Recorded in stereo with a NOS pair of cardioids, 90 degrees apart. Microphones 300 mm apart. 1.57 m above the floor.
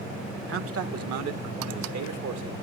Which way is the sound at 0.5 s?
45° right.